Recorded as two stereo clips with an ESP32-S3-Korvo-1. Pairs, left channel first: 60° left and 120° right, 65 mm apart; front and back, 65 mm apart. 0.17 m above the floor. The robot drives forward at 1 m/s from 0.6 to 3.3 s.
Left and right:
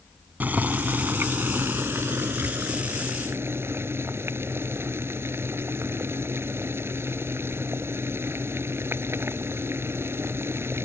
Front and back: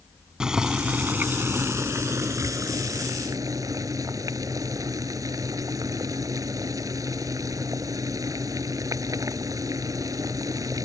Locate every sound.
0.4 s boiling: 115° right; by 10.8 s 165° right